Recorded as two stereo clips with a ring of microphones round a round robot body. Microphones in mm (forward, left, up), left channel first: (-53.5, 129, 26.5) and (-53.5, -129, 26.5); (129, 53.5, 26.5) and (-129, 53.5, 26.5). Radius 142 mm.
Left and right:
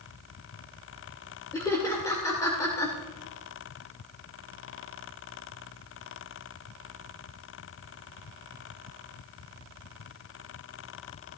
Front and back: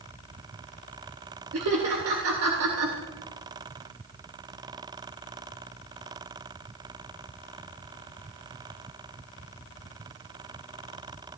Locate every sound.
1.5 s laughter: 165° left, 2.5 m